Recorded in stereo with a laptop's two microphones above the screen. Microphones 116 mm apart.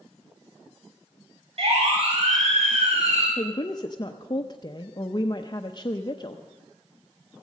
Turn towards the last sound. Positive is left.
turn(degrees=35)  # may be behind; listen again after turning